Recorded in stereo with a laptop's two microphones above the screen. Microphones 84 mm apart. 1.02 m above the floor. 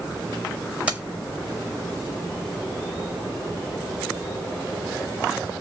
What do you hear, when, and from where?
0.9 s keys jangling: 15° right (ahead or behind), 0.7 m